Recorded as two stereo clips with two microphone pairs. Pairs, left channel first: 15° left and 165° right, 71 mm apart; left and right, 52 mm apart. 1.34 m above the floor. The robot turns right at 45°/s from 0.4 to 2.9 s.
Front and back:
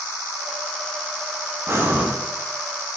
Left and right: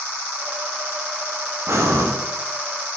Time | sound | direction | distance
1.7 | breathing | 115° right | 0.5 m